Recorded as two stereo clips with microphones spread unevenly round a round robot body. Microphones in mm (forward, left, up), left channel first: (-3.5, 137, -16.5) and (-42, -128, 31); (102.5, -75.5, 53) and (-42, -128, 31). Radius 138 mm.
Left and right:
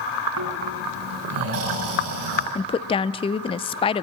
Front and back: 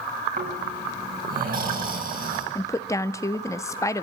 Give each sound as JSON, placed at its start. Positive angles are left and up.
{"t": 0.4, "sound": "snoring", "azimuth_deg": -135, "distance_m": 7.0}
{"t": 2.5, "sound": "a woman speaking", "azimuth_deg": 90, "distance_m": 0.6}